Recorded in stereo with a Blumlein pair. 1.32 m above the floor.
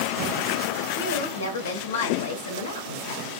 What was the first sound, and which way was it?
A woman speaking, 65° left.